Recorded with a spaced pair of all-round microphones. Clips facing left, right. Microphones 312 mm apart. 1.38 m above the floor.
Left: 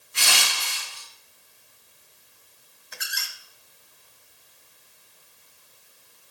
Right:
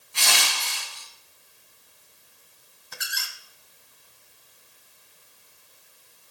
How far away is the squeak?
About 1.4 m.